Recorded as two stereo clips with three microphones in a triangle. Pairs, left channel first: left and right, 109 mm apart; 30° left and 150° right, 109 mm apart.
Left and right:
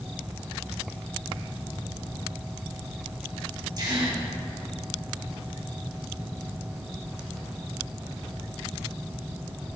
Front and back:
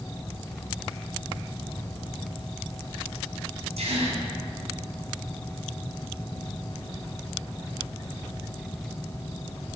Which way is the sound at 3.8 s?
145° right.